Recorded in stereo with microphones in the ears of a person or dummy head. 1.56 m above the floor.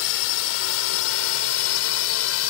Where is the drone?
75° left (ahead or behind); by 2.5 s 80° left.